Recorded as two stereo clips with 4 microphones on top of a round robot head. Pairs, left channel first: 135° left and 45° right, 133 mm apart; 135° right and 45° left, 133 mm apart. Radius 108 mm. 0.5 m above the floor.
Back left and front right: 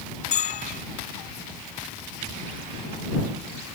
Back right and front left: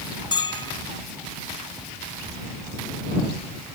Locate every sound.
0.3 s a bell: 165° left